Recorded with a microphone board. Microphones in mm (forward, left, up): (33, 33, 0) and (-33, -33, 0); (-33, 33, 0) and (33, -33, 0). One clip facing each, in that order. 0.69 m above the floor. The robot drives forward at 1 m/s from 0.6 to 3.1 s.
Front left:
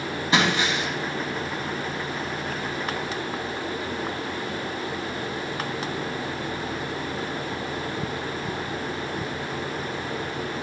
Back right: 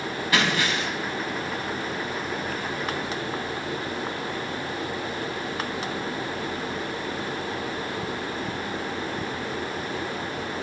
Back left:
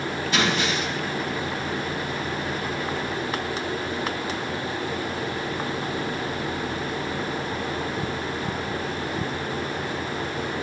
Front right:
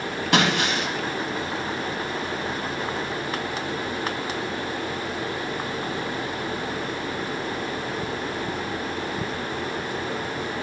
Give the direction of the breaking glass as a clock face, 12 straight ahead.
1 o'clock.